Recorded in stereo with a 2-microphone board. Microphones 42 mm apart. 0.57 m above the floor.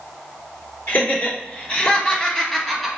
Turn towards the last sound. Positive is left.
turn(degrees=5)  # may be behind; listen again after turning